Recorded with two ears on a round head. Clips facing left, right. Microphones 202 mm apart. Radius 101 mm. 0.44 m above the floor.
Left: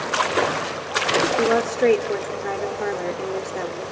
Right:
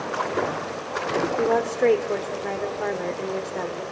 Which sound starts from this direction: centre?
A woman speaking, at 1.4 s.